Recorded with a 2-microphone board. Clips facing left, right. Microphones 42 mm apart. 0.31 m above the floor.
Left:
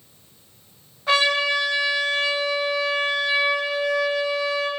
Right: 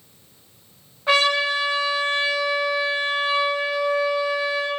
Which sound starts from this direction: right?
A trumpet, at 1.1 s.